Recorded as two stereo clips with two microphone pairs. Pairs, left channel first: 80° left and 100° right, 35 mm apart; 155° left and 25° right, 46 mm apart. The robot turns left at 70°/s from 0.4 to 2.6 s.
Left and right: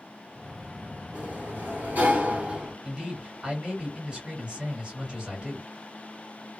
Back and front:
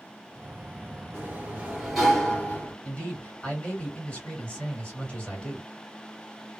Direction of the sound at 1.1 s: 55° right.